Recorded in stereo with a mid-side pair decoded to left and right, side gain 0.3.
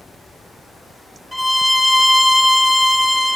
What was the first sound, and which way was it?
A violin, 10° left.